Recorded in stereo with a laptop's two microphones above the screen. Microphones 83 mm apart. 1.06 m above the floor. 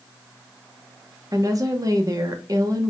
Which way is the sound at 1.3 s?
45° right (ahead or behind).